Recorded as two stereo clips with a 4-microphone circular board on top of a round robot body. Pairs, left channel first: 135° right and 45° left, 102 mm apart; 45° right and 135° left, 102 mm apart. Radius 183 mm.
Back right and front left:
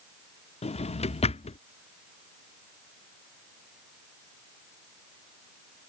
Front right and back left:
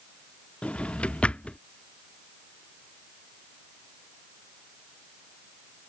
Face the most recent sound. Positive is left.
turn(degrees=-125)